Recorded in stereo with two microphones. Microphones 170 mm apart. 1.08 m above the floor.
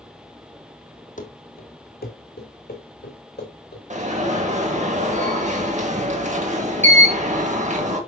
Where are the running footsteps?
50° left (ahead or behind), 1.7 m; by 3.8 s 75° left (ahead or behind), 5 m.